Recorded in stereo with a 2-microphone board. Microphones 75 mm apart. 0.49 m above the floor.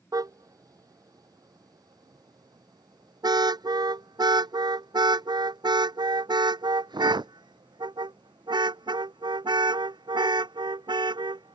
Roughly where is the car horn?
Right.